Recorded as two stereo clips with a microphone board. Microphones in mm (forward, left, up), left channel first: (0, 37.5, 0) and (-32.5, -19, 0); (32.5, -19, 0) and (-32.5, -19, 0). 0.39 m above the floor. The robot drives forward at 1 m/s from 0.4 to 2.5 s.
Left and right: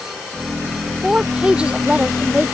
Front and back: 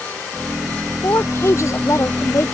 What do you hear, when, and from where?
1.0 s a woman speaking: 45° right; by 2.5 s 50° right